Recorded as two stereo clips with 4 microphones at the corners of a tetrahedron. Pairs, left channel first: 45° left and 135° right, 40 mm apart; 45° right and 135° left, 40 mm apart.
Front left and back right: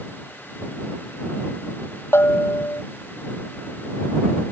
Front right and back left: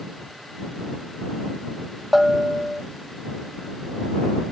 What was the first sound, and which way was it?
A bell, 45° left.